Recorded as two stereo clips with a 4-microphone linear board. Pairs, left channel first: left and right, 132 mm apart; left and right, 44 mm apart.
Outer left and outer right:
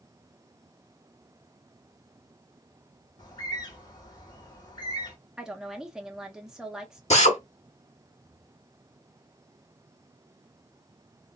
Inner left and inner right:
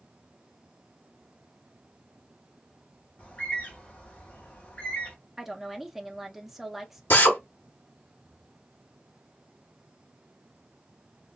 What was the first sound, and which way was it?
A bird, 30° left (ahead or behind).